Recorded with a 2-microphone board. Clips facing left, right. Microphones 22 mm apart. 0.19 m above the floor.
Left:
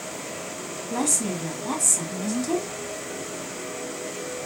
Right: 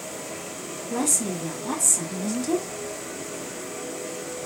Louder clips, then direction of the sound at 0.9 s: Even; 15° left (ahead or behind).